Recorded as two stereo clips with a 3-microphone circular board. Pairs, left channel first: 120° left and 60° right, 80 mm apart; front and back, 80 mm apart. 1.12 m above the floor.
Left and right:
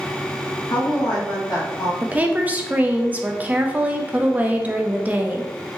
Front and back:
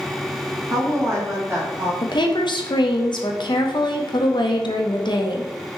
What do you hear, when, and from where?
0.7 s a woman speaking: 135° left, 1.4 m; by 1.9 s 130° left, 2 m
2.0 s a woman speaking: 10° left, 0.7 m